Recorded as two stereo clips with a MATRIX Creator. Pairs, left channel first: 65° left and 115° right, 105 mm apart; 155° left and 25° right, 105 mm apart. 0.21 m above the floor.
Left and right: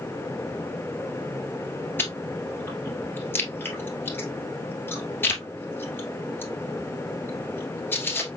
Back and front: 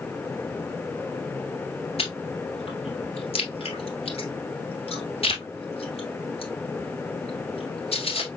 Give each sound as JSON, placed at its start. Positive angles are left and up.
{"t": 2.0, "sound": "chewing", "azimuth_deg": 140, "distance_m": 1.7}